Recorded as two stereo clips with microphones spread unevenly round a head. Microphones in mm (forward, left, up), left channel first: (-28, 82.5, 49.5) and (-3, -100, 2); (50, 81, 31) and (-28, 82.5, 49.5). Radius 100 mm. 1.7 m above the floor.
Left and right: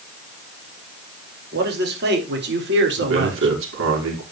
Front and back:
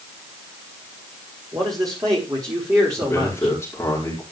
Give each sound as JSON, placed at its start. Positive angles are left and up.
{"t": 1.5, "sound": "a man speaking", "azimuth_deg": -115, "distance_m": 5.5}
{"t": 3.0, "sound": "a man speaking", "azimuth_deg": -70, "distance_m": 5.5}